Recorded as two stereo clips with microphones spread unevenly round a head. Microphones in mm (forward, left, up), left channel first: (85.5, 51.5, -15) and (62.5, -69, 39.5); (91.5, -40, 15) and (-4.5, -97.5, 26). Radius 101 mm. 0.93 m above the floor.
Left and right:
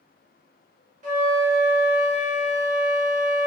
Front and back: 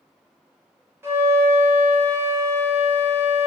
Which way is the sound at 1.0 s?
85° right.